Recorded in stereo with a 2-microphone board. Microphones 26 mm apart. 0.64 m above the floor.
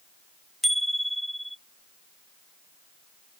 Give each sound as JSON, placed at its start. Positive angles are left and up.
{"t": 0.6, "sound": "a bicycle bell", "side_deg": 0}